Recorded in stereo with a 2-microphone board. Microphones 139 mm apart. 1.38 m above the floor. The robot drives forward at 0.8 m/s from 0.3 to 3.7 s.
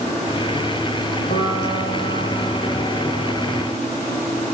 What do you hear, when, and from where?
1.3 s a piano: 75° left (ahead or behind), 6.5 m